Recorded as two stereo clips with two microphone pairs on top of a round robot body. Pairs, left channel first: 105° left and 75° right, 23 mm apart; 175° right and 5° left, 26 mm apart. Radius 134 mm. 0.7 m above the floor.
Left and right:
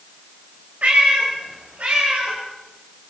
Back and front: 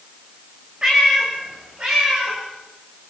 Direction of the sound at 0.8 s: 55° right.